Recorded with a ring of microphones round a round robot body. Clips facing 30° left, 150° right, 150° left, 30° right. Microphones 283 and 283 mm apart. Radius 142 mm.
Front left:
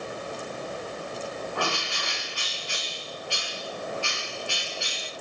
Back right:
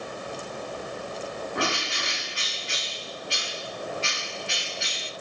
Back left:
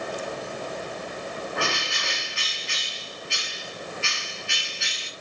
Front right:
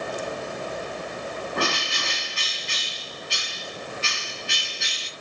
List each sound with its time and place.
1.6 s a bird: 80° right, 2 m